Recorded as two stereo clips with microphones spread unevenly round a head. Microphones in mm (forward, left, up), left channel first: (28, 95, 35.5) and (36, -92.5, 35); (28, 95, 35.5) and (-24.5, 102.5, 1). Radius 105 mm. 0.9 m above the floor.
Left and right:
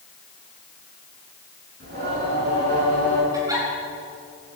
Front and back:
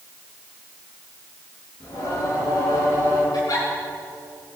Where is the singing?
55° right, 8.5 m.